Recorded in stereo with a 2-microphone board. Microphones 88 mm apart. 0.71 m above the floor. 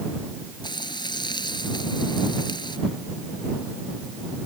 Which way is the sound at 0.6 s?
55° left (ahead or behind).